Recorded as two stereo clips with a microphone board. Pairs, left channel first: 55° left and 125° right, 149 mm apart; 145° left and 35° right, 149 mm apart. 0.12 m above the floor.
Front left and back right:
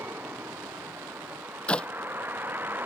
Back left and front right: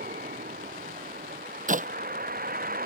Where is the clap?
25° right.